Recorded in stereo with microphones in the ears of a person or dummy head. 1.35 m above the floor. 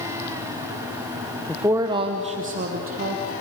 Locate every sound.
1.5 s a woman speaking: centre (ahead or behind), 0.7 m; by 3.3 s 50° right (ahead or behind), 2 m